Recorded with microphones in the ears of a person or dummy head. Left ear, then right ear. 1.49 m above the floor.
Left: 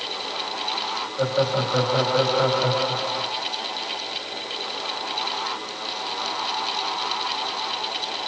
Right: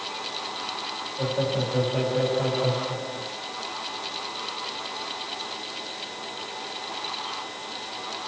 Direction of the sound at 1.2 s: 55° left (ahead or behind).